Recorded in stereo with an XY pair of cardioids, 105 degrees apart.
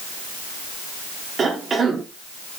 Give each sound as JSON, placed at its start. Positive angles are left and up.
{"t": 1.4, "sound": "a cough", "azimuth_deg": -45, "distance_m": 3.5}